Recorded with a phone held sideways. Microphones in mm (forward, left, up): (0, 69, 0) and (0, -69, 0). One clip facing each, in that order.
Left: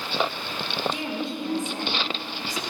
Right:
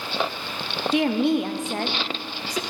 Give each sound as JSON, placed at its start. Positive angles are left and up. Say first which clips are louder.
{"t": 0.9, "sound": "a woman speaking", "louder": "right 10 dB", "side_deg": -75, "distance_m": 0.6}